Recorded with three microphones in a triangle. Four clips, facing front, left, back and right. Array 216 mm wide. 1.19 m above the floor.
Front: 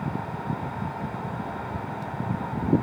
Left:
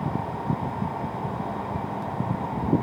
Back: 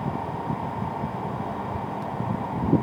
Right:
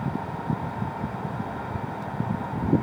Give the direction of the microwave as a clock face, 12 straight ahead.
I don't hear a microwave.